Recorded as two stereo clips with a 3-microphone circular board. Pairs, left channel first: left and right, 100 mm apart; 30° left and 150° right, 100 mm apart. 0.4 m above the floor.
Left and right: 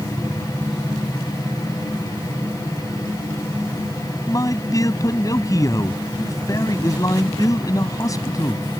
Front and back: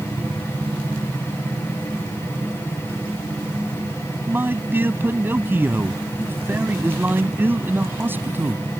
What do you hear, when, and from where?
4.3 s a man speaking: 140° left